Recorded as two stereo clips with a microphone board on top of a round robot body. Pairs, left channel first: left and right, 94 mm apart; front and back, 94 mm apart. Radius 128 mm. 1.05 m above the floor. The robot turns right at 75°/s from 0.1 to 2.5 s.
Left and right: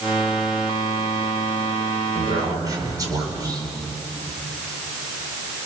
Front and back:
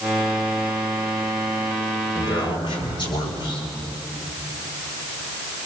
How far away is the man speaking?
About 5.5 m.